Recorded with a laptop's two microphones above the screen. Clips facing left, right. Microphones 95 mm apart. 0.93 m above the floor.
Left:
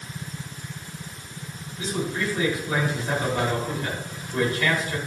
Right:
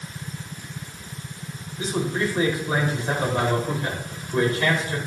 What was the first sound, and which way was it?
A man speaking, 30° right (ahead or behind).